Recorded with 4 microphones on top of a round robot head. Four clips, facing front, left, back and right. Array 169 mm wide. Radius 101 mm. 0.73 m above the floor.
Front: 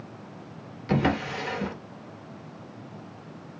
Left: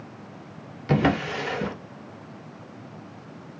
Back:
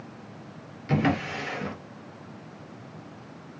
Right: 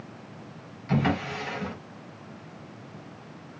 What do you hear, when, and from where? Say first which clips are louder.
0.9 s a drawer: left 4 dB, even; 80° left, 0.7 m